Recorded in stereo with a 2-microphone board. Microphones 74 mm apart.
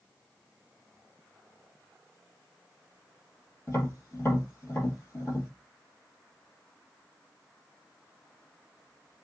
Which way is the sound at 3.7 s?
30° left (ahead or behind).